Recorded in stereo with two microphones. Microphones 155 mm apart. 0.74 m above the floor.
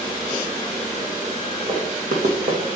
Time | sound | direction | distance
1.7 | running footsteps | 75° right (ahead or behind) | 2.5 m